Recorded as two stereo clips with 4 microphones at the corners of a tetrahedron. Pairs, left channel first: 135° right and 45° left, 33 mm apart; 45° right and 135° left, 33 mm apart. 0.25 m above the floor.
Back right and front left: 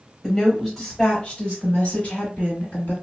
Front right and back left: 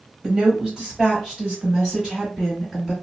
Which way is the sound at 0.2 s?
140° left.